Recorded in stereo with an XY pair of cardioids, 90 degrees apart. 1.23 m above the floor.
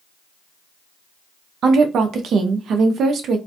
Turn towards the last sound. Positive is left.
turn(degrees=-70)